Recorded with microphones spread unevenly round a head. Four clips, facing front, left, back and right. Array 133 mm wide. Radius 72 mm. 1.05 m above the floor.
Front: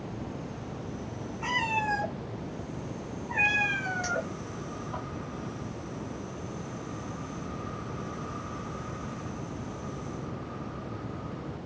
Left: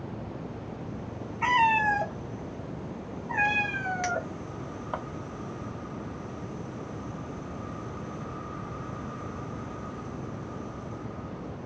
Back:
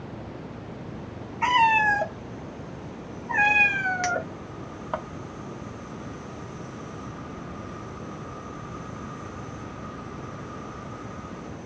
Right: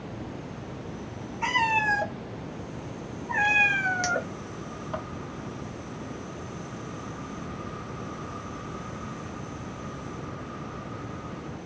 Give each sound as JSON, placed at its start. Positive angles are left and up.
{"t": 1.4, "sound": "a cat meowing", "azimuth_deg": 170, "distance_m": 1.6}
{"t": 4.0, "sound": "a clink", "azimuth_deg": 165, "distance_m": 0.7}